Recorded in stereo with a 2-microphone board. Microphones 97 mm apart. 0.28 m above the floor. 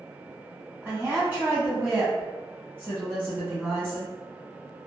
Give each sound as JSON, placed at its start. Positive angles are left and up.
{"t": 0.8, "sound": "a woman speaking", "side_deg": -15, "distance_m": 1.5}